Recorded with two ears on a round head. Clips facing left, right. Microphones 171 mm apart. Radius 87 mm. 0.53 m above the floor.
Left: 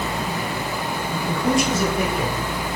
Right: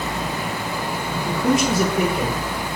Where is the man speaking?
10° left (ahead or behind), 1.0 m; by 2.4 s 50° right (ahead or behind), 1.4 m.